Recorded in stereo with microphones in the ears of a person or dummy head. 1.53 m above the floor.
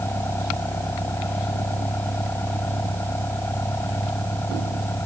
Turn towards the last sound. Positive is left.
turn(degrees=10)  # may be behind; listen again after turning